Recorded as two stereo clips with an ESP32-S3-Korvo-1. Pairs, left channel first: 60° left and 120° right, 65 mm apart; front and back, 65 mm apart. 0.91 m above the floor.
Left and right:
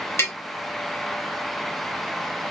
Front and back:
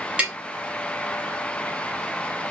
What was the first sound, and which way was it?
Tapping, 110° left.